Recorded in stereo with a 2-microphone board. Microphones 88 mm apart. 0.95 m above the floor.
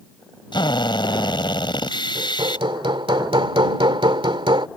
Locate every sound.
0.5 s a drill: 60° left (ahead or behind)
2.1 s hammering: 70° right (ahead or behind)